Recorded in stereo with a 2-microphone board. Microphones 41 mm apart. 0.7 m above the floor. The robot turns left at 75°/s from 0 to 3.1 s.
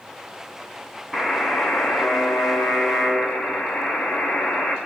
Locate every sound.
1.1 s a buzzer: 175° right, 4 m; by 4.8 s 35° left, 4 m